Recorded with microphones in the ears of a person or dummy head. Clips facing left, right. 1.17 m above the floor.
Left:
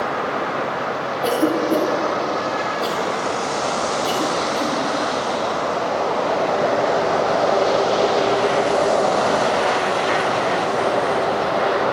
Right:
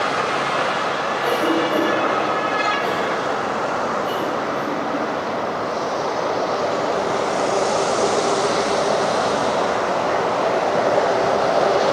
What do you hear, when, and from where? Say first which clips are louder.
1.2 s a cough: left 2 dB; 60° left (ahead or behind), 2 m